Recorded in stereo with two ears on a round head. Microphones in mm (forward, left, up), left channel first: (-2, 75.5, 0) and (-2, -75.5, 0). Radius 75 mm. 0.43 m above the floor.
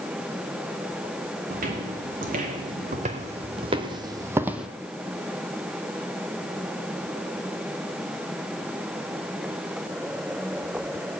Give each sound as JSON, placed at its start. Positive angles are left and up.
{"t": 1.5, "sound": "footsteps", "side_deg": -55, "distance_m": 2.5}